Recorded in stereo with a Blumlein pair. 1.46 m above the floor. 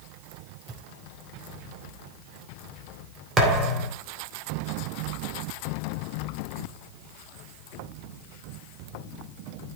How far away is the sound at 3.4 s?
About 2.5 m.